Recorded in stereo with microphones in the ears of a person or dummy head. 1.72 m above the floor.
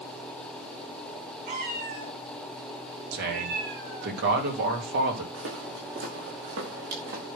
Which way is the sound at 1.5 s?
40° right (ahead or behind).